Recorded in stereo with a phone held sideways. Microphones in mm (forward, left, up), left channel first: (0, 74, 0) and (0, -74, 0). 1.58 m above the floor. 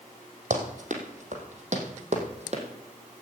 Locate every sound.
0.5 s running footsteps: 60° right (ahead or behind), 3 m; by 2.6 s 50° right (ahead or behind), 3 m